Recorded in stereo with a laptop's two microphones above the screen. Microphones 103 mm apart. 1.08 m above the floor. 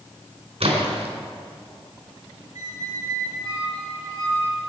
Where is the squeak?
35° right (ahead or behind), 4 m.